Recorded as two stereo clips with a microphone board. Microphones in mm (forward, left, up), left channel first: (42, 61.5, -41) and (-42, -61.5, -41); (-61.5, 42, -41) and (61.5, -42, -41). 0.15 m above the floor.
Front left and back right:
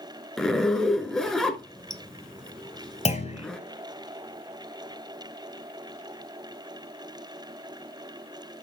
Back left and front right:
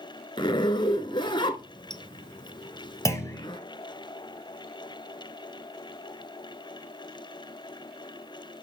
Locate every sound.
0.4 s a zipper: 140° left, 0.9 m
3.0 s a clunk: 80° left, 2.5 m